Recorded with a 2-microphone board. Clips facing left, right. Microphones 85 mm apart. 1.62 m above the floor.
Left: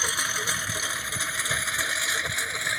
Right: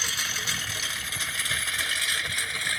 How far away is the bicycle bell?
I don't hear a bicycle bell.